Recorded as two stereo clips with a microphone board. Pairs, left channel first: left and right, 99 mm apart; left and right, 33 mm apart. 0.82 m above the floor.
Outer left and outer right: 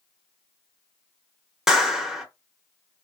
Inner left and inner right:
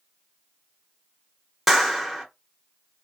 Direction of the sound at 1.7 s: 5° right (ahead or behind).